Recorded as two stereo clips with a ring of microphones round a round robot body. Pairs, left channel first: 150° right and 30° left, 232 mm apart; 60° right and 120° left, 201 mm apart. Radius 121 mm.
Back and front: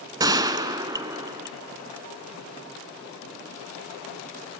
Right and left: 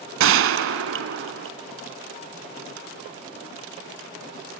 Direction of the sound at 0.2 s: 105° left.